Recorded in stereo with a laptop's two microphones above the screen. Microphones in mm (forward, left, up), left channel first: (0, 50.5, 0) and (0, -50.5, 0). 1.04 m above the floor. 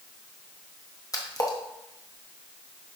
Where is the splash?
35° left (ahead or behind), 0.8 m.